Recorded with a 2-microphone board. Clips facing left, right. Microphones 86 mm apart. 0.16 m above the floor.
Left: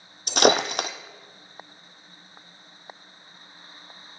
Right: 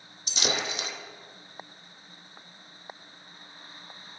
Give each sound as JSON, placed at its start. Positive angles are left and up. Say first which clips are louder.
{"t": 0.3, "sound": "breaking glass", "louder": "left 12 dB", "side_deg": 70, "distance_m": 0.8}